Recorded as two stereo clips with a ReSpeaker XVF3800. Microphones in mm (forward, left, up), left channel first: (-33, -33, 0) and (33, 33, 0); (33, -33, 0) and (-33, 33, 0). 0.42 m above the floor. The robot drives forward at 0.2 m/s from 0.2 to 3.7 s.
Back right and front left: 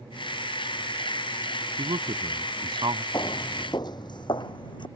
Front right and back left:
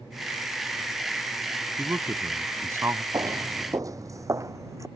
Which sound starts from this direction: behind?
Footsteps, at 3.1 s.